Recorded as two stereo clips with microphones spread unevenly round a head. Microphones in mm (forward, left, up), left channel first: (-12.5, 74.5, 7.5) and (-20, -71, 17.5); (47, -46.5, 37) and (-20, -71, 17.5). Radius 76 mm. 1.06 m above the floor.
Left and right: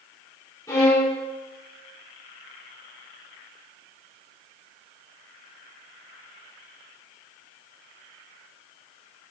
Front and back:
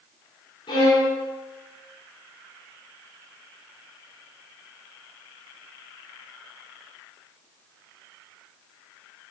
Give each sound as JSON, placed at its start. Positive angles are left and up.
{"t": 0.7, "sound": "a violin", "azimuth_deg": 15, "distance_m": 3.5}